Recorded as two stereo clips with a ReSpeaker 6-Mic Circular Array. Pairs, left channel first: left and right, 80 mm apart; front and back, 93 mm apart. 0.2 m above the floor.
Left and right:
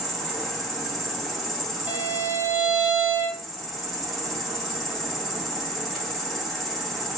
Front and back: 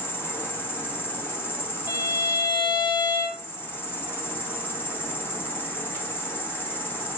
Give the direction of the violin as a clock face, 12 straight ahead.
1 o'clock.